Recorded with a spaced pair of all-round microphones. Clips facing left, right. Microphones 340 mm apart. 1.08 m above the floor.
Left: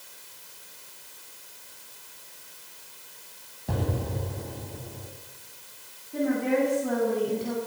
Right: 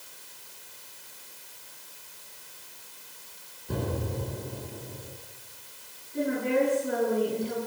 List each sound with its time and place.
3.7 s an explosion: 85° left, 7 m
6.1 s a woman speaking: 80° left, 9.5 m